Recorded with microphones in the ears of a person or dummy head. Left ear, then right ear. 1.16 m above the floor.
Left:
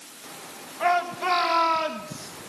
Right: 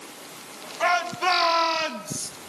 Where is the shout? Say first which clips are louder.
Right 1 dB; 20° right (ahead or behind), 2.5 m.